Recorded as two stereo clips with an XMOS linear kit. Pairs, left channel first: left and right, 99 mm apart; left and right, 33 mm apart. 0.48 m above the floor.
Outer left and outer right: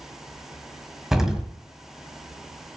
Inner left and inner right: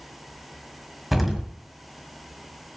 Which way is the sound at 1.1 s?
5° right (ahead or behind).